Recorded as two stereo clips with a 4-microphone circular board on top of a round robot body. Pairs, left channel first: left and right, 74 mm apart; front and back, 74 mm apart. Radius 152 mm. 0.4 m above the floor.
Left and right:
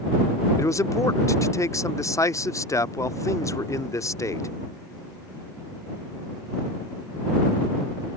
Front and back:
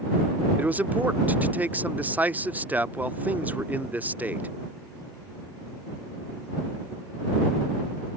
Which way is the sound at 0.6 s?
120° left.